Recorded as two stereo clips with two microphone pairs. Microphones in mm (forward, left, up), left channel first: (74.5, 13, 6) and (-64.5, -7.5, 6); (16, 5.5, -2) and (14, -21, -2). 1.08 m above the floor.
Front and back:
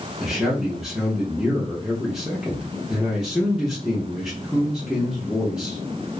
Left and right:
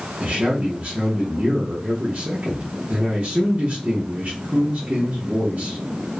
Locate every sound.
0.2 s a man speaking: 85° right, 0.8 m